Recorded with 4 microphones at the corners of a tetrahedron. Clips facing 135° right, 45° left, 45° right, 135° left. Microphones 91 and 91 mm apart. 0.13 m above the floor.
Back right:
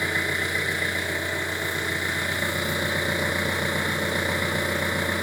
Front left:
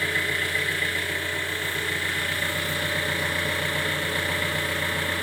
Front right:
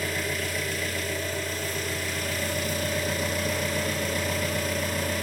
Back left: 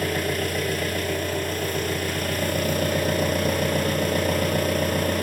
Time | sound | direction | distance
0.0 | an engine running | 155° left | 0.9 m